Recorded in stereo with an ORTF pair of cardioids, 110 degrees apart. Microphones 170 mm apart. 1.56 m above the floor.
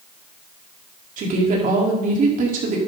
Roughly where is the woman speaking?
Ahead right.